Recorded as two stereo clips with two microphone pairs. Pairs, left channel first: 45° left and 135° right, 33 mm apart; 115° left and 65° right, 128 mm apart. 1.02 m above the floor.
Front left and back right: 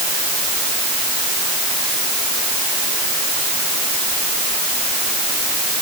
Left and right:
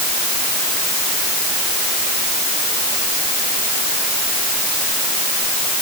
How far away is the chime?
No chime in this recording.